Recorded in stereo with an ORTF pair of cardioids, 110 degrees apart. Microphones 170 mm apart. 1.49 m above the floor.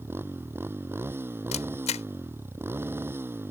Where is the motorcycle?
15° right.